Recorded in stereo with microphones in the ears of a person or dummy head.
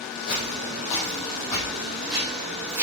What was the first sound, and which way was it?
Footsteps, 50° left (ahead or behind).